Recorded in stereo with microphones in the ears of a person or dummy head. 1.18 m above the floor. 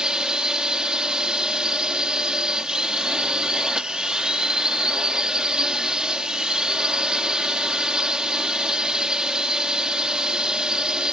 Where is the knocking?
I don't hear knocking.